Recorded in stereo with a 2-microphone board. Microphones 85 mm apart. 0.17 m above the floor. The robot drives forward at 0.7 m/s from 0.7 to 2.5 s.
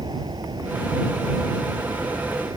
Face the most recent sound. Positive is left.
turn(degrees=-55)  # may be behind; listen again after turning